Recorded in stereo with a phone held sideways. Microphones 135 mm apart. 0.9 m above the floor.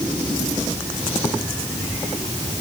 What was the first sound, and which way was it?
Only background noise.